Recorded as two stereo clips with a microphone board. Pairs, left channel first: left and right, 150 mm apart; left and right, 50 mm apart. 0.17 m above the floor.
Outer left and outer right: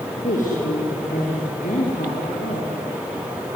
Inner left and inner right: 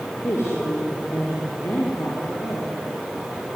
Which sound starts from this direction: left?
A woman speaking, at 0.2 s.